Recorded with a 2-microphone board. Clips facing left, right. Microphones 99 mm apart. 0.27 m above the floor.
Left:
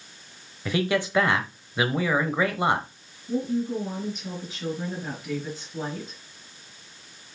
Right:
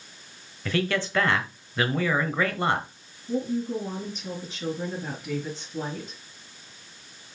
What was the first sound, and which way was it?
A man speaking, 15° left (ahead or behind).